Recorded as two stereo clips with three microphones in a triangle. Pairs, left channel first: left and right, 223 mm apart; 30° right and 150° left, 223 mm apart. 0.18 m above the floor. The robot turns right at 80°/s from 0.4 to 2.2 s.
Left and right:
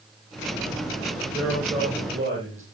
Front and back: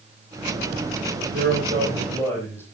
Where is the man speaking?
Straight behind, 6.5 m; by 2.6 s 110° right, 6.5 m.